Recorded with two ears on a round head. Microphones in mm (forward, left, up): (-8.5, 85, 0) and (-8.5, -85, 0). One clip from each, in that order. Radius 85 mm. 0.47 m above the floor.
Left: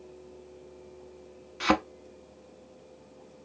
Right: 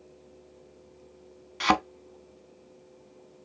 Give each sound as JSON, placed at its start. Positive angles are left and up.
{"t": 1.6, "sound": "a thud", "side_deg": -25, "distance_m": 0.6}